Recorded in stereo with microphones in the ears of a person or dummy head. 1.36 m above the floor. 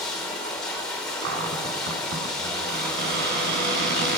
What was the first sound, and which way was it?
Running water, 5° left (ahead or behind).